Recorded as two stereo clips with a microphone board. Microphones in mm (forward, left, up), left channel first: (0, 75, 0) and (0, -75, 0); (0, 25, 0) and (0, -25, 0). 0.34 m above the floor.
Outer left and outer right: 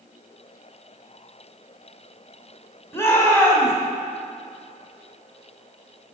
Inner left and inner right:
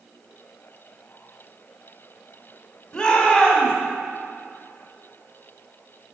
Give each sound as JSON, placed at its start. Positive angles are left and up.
{"t": 2.9, "sound": "a shout", "side_deg": 20, "distance_m": 2.0}